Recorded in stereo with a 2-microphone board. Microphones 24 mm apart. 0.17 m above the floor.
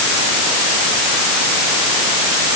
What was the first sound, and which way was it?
Only background noise.